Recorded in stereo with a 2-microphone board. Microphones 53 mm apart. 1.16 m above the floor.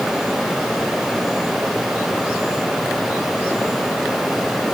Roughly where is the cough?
No cough in this recording.